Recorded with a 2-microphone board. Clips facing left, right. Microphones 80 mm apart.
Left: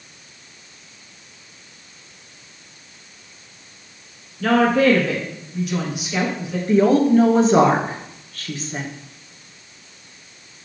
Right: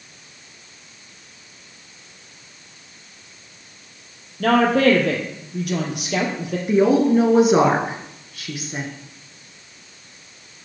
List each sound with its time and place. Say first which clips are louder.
4.4 s a woman speaking: even; 55° right (ahead or behind), 2 m
6.7 s a woman speaking: left 1 dB; 10° right (ahead or behind), 1.1 m